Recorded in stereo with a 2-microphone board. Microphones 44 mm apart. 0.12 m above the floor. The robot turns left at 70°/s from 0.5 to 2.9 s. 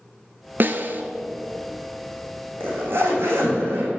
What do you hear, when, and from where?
0.6 s a snare drum: 50° right (ahead or behind), 0.6 m; by 1.0 s 55° right (ahead or behind), 0.6 m
2.6 s a zipper: 50° right (ahead or behind), 3.5 m; by 3.9 s 70° right (ahead or behind), 3.5 m